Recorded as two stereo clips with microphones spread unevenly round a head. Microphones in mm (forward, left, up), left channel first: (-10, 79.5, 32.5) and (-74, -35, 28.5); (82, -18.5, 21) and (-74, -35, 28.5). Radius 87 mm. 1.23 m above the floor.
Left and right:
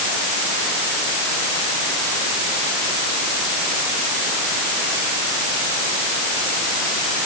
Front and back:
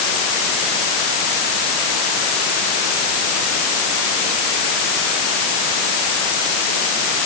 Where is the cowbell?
No cowbell in this recording.